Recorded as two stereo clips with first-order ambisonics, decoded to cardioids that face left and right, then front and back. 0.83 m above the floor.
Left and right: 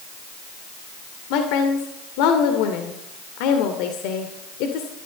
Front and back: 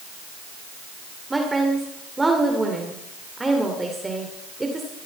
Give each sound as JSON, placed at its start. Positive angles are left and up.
{"t": 1.3, "sound": "a woman speaking", "azimuth_deg": 100, "distance_m": 2.5}